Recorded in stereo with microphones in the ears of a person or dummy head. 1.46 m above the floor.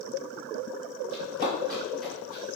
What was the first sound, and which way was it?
Running footsteps, 25° right (ahead or behind).